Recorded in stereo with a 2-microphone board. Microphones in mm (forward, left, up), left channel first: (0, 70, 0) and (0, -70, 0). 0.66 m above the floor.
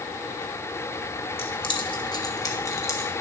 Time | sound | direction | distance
1.4 | keys jangling | 40° left (ahead or behind) | 1.4 m